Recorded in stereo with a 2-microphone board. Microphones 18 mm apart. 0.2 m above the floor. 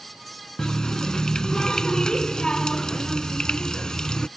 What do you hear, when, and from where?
0.6 s a running tap: 45° left (ahead or behind)